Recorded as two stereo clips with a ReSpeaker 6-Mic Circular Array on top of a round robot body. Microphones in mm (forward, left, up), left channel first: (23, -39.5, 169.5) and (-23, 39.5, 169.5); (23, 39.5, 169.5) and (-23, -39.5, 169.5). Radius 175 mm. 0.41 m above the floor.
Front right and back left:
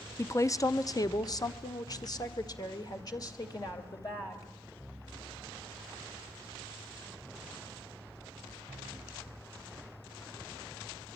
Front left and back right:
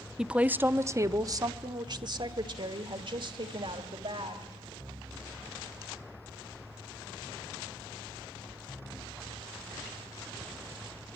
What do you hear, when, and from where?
0.2 s a woman speaking: 45° right, 0.9 m; by 4.5 s 110° right, 2.5 m